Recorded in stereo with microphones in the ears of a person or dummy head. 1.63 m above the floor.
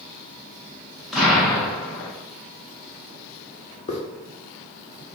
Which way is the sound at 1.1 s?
Centre (ahead or behind).